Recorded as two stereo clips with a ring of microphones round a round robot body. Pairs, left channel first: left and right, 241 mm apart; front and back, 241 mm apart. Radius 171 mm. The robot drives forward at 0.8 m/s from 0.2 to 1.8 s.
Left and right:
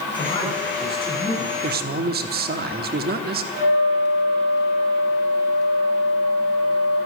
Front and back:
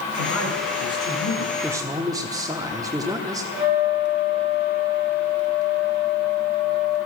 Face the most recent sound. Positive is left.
turn(degrees=50)